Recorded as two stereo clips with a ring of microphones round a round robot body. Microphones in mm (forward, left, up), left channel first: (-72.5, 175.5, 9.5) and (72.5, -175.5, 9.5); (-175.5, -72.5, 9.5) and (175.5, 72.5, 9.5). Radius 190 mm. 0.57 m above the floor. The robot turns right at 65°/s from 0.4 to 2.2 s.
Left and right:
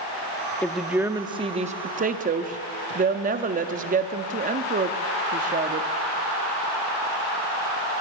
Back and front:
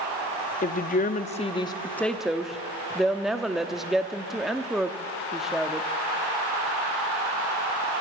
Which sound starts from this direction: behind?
A woman speaking, at 0.6 s.